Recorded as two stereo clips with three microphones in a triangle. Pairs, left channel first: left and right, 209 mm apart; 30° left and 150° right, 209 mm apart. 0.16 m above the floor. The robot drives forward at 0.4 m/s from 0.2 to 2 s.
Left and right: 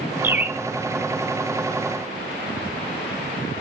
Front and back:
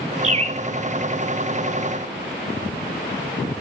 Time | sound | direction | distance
0.2 | a bird | 160° right | 0.6 m